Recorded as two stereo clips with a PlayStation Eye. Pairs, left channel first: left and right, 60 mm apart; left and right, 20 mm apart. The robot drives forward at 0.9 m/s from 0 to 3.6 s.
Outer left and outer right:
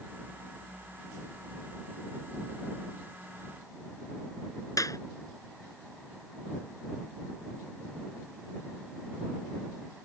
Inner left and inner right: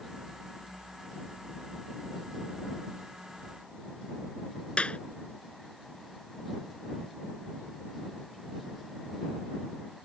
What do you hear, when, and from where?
4.8 s a clap: 70° left (ahead or behind)